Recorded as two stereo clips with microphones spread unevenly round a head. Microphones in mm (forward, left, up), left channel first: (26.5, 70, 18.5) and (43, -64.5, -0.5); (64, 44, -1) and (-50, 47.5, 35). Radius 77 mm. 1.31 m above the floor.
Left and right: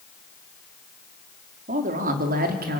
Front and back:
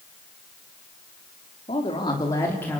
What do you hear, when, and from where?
1.7 s a man speaking: 55° right, 3.5 m; by 2.8 s 80° right, 3.5 m